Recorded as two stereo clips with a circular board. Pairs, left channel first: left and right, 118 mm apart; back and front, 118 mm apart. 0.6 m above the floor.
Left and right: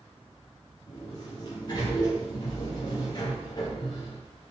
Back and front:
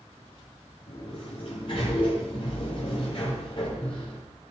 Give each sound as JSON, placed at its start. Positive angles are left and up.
{"t": 0.9, "sound": "a sliding door", "azimuth_deg": 140, "distance_m": 9.5}